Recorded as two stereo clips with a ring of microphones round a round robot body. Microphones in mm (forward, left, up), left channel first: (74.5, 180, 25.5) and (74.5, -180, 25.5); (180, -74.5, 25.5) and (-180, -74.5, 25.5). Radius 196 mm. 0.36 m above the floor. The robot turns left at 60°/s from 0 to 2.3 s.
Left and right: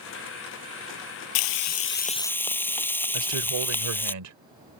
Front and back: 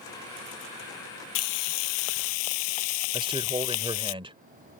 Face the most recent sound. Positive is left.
turn(degrees=-110)